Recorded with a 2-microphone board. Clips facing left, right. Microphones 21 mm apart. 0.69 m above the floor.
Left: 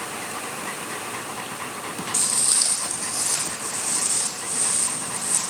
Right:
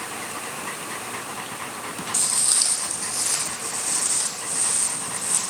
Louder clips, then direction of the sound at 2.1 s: Even; 5° right (ahead or behind).